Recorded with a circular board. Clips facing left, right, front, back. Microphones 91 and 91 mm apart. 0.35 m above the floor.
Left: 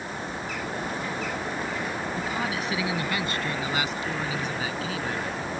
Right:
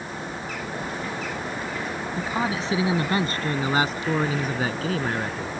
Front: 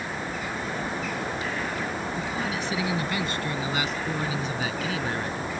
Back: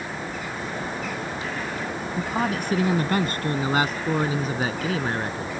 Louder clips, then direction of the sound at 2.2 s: Right 6 dB, back 4 dB; 150° right.